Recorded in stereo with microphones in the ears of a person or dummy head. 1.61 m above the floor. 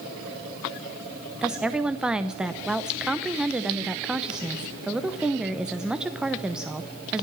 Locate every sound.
1.4 s a woman speaking: 5° right (ahead or behind), 0.9 m